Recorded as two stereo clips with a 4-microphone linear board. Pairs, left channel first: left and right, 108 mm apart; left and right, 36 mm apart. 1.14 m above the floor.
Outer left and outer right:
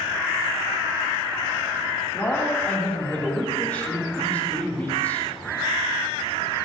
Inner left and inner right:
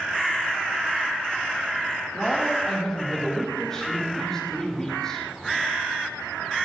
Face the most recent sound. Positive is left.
turn(degrees=15)  # may be behind; listen again after turning